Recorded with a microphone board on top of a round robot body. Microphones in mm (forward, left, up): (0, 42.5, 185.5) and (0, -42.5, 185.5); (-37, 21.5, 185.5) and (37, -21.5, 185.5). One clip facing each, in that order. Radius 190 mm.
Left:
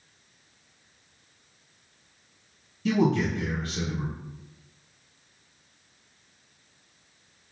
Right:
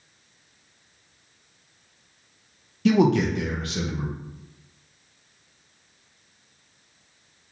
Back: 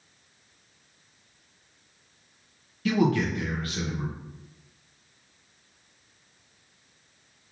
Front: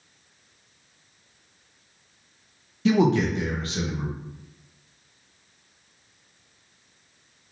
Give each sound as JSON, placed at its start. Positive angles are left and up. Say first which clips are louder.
{"t": 2.9, "sound": "a man speaking", "louder": "right 5 dB, front 4 dB", "azimuth_deg": -95, "distance_m": 0.8}